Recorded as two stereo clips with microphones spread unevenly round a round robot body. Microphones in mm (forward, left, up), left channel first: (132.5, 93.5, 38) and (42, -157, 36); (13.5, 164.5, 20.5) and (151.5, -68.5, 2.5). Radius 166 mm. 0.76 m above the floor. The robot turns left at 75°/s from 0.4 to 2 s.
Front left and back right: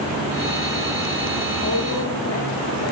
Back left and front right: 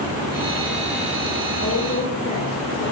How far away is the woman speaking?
About 3.5 m.